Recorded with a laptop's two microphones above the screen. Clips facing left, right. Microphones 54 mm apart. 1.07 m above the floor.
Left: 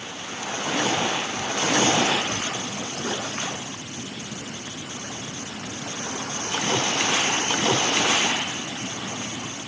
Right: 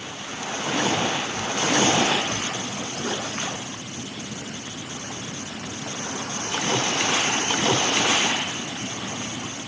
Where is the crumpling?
No crumpling in this recording.